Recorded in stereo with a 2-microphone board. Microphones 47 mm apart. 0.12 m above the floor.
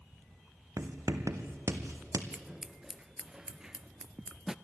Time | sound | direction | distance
0.8 | writing | 80° right | 1.5 m
2.3 | scissors | 15° right (ahead or behind) | 0.5 m